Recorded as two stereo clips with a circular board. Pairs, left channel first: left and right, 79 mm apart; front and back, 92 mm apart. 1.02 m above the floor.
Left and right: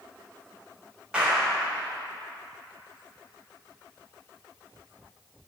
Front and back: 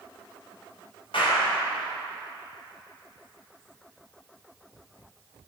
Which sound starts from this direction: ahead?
A clap, at 1.1 s.